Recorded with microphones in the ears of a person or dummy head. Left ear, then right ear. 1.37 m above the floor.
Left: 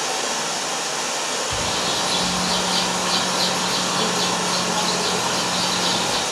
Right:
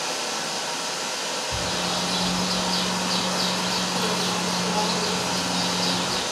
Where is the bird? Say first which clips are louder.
Left 3 dB; 65° left (ahead or behind), 1.8 m.